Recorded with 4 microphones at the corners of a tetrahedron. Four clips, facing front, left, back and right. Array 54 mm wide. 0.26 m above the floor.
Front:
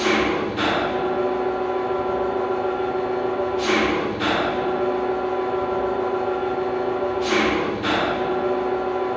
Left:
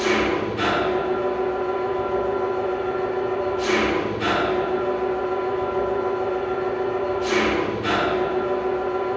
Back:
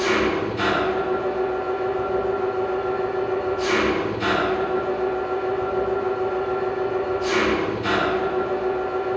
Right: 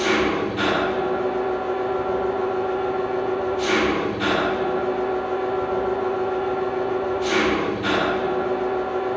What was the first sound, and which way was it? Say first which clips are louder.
An engine running: even, front 1 dB; 40° right.